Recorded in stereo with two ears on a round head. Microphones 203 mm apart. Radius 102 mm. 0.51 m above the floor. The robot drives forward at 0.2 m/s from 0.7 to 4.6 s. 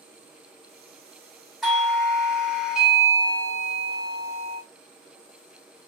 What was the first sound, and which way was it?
A doorbell, centre (ahead or behind).